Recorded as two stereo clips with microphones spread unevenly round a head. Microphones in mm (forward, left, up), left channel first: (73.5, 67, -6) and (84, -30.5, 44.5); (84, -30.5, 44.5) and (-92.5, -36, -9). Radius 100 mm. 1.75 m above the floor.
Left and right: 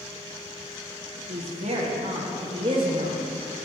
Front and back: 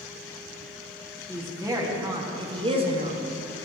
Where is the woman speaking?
100° right, 3 m; by 3.2 s 120° right, 1.8 m.